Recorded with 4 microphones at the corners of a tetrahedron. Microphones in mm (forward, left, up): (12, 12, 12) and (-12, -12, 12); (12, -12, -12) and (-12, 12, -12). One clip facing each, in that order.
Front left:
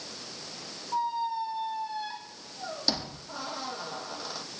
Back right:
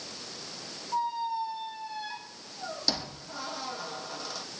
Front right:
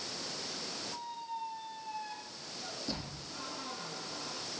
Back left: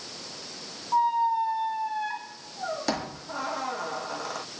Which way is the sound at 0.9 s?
125° left.